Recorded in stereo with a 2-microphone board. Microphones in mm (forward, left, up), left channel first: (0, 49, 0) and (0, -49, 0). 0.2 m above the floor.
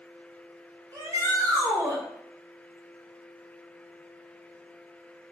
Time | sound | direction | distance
0.9 | a shout | 35° right (ahead or behind) | 1.6 m